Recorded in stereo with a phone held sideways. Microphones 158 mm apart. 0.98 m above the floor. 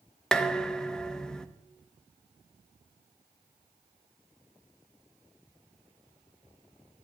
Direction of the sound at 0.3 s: 5° left (ahead or behind).